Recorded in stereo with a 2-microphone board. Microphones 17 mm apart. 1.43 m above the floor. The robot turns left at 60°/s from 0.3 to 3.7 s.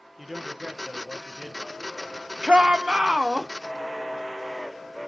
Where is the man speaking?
5° right, 1.0 m; by 2.0 s 110° right, 1.0 m.